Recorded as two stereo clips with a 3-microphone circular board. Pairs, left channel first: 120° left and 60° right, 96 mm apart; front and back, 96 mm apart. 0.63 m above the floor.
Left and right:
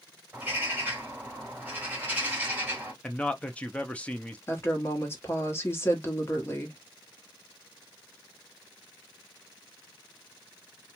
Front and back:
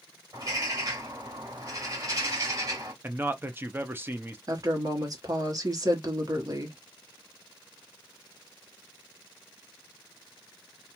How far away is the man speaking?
About 0.6 m.